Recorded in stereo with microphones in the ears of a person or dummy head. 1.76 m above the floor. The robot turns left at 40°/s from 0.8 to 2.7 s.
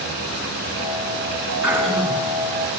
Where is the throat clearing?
5° right (ahead or behind), 8 m; by 2.3 s 20° left (ahead or behind), 8 m.